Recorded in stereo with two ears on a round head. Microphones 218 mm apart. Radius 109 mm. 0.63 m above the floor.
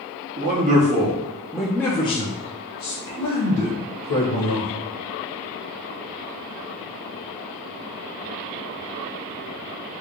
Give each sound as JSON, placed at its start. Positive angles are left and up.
{"t": 0.4, "sound": "a man speaking", "side_deg": -40, "distance_m": 1.0}